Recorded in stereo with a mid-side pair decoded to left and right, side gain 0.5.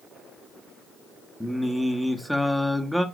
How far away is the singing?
About 1.3 m.